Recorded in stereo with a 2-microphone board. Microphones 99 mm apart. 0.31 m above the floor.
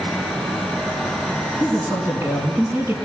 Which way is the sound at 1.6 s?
20° right (ahead or behind).